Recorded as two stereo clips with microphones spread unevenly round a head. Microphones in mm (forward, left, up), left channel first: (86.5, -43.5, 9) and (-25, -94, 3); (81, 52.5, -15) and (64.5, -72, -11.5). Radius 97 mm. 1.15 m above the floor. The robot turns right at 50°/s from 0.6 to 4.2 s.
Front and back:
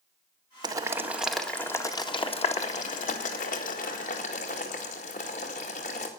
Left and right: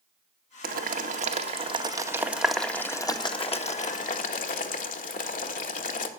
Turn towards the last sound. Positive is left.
turn(degrees=75)